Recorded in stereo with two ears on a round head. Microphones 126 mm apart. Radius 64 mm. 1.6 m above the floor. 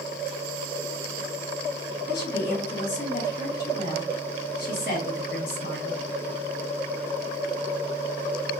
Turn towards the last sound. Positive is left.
turn(degrees=70)  # may be behind; listen again after turning